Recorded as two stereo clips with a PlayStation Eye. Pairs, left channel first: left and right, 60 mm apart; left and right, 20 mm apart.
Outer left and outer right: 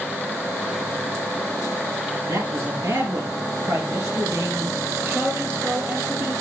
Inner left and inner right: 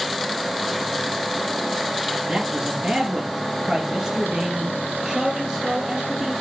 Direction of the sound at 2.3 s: 70° right (ahead or behind).